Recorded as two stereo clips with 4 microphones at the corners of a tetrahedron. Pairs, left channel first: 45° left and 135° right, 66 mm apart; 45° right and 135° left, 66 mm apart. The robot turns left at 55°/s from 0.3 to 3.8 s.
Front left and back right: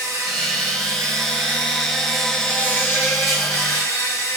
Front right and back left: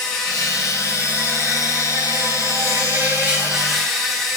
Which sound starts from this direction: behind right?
An insect, at 0.0 s.